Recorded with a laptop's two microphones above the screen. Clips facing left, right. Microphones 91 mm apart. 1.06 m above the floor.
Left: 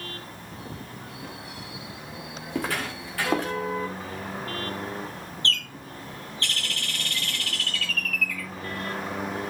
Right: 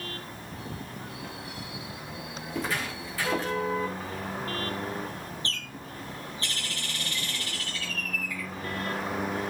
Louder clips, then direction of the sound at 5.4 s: Left 5 dB; 85° left.